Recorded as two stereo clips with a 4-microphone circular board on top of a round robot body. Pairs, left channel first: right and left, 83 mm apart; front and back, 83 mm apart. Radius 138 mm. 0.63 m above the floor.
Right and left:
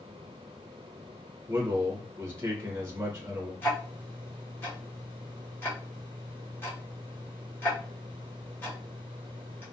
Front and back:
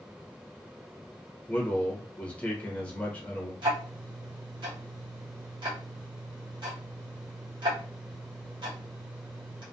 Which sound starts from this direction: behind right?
Ticking, at 3.6 s.